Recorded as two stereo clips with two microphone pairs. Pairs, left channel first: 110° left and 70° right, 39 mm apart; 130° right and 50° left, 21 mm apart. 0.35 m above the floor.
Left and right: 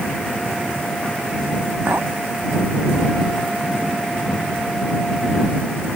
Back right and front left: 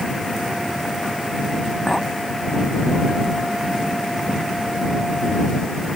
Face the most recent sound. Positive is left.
turn(degrees=-55)